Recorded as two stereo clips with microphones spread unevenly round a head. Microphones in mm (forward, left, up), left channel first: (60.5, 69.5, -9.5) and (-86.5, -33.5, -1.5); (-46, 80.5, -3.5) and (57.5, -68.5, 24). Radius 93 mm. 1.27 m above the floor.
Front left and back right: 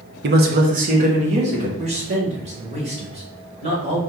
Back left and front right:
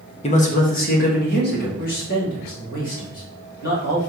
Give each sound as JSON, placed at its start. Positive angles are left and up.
{"t": 0.2, "sound": "a man speaking", "azimuth_deg": -175, "distance_m": 0.7}
{"t": 1.8, "sound": "a man speaking", "azimuth_deg": 160, "distance_m": 1.7}